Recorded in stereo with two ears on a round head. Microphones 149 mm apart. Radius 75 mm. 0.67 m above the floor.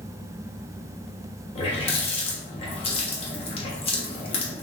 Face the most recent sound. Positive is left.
turn(degrees=35)  # may be behind; listen again after turning